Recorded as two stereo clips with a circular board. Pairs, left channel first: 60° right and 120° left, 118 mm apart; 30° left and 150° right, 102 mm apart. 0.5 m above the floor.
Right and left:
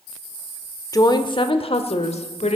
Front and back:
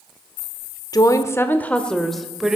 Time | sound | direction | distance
0.9 | a woman speaking | 10° right | 1.1 m